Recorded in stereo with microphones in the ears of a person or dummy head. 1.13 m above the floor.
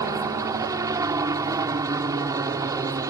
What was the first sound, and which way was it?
A helicopter, 15° right (ahead or behind).